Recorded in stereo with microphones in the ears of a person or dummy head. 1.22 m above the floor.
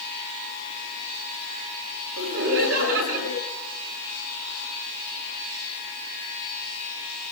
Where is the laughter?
90° right, 7.5 m.